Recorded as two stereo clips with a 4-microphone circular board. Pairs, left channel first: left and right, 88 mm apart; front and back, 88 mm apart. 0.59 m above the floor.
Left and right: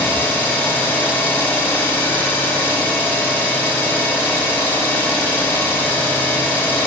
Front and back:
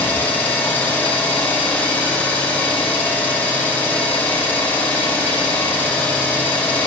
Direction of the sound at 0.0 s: 50° left.